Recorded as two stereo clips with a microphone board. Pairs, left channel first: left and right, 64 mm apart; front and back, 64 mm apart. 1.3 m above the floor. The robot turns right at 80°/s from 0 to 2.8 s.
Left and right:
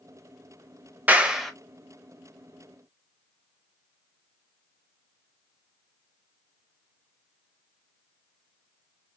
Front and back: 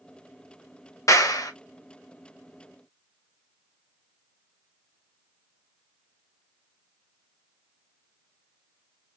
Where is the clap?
30° right, 0.8 m; by 1.5 s 5° left, 0.8 m.